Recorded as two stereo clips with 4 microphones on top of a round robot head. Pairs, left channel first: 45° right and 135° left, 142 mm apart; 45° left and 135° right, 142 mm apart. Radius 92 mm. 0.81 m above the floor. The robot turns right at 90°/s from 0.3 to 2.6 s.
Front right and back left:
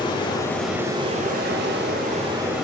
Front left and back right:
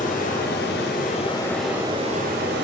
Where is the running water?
15° left, 1.2 m; by 2.6 s 140° right, 1.2 m.